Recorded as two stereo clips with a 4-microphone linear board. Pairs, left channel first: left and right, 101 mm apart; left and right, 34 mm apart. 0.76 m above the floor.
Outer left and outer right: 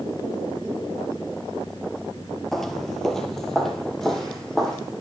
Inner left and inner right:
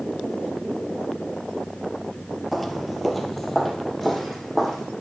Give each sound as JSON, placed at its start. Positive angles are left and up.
{"t": 2.5, "sound": "footsteps", "side_deg": 5, "distance_m": 0.8}